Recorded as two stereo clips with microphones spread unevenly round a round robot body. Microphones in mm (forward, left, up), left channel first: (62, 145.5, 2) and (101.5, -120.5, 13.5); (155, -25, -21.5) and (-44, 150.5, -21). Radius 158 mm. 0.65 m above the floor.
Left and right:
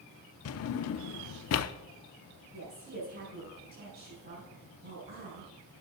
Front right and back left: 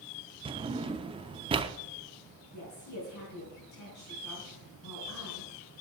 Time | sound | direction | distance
0.5 | a drawer | 65° left | 0.6 m
2.5 | a woman speaking | 25° right | 5 m